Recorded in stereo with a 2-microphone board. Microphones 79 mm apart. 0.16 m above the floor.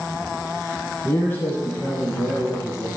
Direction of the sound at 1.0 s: 25° left (ahead or behind).